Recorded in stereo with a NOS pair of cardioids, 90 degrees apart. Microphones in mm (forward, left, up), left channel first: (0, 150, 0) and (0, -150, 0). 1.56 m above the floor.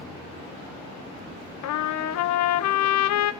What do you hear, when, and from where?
1.6 s a trumpet: 65° left, 0.9 m